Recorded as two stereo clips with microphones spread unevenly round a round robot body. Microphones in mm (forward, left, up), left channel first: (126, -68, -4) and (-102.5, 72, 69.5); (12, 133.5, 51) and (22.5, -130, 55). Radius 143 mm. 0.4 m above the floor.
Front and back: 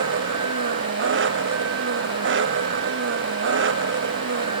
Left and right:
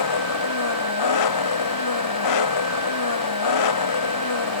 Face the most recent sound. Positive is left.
turn(degrees=100)